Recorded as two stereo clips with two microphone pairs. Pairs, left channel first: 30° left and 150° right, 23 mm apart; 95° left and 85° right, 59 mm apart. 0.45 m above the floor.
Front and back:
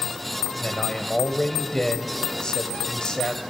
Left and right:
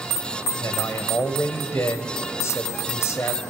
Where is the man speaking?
80° left, 2 m.